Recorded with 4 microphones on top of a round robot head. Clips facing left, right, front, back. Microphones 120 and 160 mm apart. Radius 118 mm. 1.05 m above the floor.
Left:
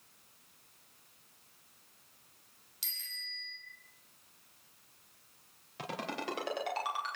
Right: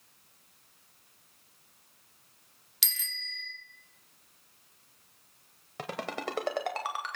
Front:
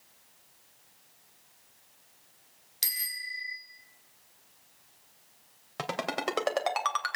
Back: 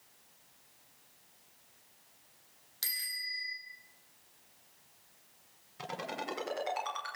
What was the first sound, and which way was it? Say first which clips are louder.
A bicycle bell: right 7 dB, front 3 dB; 75° right.